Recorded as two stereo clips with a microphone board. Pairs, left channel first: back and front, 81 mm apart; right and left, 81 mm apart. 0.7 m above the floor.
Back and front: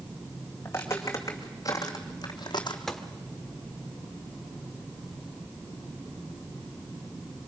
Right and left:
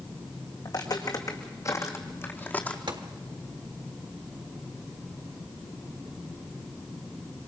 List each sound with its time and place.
0.7 s footsteps: 120° right, 3.5 m; by 2.8 s 165° right, 2.5 m
2.9 s a gunshot: 95° left, 1.4 m